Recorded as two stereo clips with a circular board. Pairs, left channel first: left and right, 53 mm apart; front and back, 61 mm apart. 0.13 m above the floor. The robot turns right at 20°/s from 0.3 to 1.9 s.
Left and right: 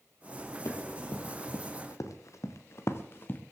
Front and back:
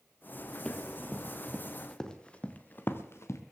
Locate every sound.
0.7 s running footsteps: 70° left, 3 m; by 3.4 s 40° left, 1.9 m